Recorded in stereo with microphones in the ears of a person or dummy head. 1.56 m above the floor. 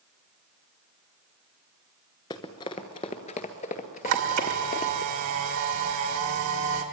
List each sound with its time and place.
2.3 s running footsteps: 20° left (ahead or behind), 1.6 m; by 5.0 s 45° left (ahead or behind), 2.5 m
4.0 s a camera shutter: 70° right (ahead or behind), 2.5 m